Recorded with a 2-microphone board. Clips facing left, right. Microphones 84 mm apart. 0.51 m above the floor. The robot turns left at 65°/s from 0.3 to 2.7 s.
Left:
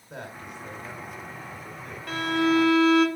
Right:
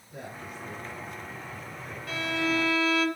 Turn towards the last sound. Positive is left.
turn(degrees=50)